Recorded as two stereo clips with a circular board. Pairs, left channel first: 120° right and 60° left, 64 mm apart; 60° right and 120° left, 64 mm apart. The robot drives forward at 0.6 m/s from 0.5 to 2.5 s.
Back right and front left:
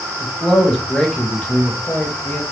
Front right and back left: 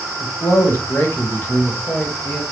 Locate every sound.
0.2 s a man speaking: 35° right, 1.2 m; by 2.4 s 130° right, 1.1 m